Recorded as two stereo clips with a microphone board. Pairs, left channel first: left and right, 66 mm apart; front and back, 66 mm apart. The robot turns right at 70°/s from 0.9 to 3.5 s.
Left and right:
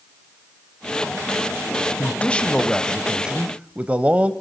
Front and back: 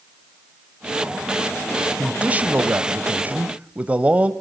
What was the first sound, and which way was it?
A man speaking, 120° left.